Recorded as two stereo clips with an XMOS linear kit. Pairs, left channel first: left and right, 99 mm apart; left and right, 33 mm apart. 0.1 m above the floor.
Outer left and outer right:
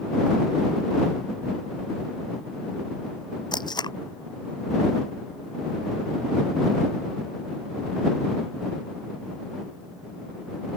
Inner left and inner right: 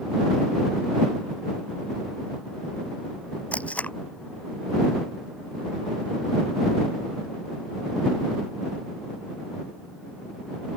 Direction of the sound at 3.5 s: 45° left (ahead or behind).